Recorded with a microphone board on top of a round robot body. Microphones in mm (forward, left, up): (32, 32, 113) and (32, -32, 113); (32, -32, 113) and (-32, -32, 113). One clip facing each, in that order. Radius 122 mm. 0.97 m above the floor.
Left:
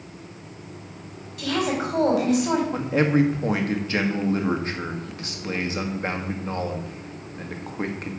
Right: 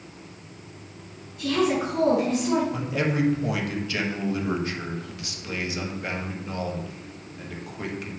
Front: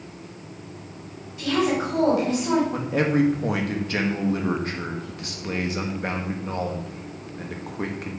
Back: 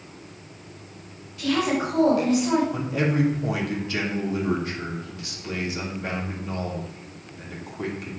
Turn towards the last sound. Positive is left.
turn(degrees=40)